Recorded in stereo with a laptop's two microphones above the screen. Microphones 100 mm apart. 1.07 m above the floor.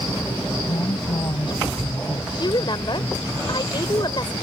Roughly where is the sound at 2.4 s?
Left.